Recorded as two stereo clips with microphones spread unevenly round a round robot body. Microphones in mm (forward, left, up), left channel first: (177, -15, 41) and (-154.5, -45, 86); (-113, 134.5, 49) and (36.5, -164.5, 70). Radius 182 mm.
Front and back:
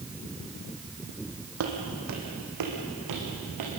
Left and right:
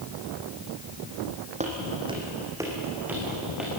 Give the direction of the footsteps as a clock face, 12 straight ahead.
4 o'clock.